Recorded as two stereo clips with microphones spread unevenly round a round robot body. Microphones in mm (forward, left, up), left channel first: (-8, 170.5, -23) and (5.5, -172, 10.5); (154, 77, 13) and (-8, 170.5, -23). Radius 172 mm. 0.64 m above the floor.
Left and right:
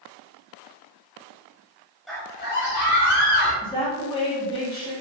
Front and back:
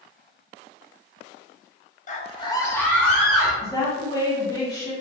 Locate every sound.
2.1 s a scream: 10° left, 0.8 m; by 3.5 s 65° left, 2.0 m
3.6 s a woman speaking: 45° left, 0.9 m